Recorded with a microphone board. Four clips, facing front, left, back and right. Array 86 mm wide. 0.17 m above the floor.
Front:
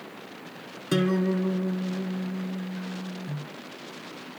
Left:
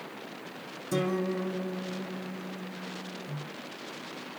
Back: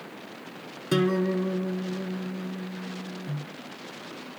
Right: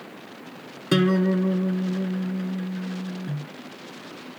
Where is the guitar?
90° right, 0.9 m.